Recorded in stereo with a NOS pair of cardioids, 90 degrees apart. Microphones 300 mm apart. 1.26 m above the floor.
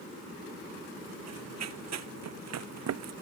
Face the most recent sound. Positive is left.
turn(degrees=-60)